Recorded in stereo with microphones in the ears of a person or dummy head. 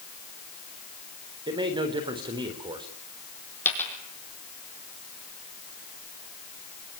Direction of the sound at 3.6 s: 10° left (ahead or behind).